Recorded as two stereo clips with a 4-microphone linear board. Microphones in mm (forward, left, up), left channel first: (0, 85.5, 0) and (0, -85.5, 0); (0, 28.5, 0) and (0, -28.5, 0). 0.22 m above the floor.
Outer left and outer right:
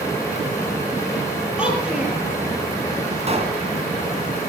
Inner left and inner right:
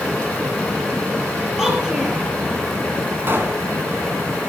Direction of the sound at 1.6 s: 5° right (ahead or behind).